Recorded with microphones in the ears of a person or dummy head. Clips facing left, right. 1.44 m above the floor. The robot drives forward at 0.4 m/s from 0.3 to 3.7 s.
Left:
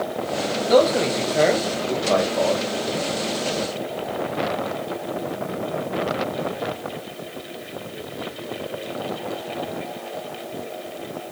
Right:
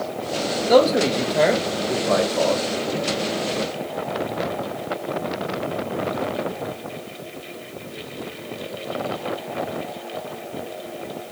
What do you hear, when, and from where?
0.7 s a man speaking: centre (ahead or behind), 2 m; by 2.6 s 5° right (ahead or behind), 1.4 m